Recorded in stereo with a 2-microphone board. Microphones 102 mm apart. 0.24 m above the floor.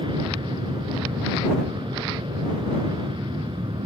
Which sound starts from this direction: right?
An aircraft, at 0.0 s.